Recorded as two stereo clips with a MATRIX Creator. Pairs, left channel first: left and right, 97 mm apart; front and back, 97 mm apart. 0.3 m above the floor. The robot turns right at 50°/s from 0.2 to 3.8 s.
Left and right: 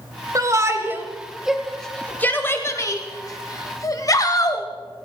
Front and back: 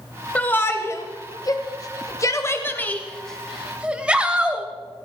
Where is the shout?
65° right, 1.1 m; by 4.7 s 105° left, 1.1 m.